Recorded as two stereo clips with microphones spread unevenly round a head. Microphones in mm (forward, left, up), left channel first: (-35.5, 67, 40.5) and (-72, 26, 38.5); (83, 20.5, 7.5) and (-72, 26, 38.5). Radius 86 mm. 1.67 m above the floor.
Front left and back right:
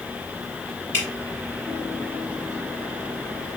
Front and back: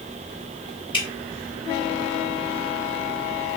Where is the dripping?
60° left, 1.7 m.